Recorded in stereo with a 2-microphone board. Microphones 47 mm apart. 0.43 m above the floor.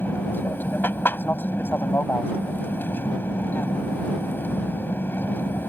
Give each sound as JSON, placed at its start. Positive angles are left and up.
{"t": 0.0, "sound": "an aircraft", "side_deg": 45}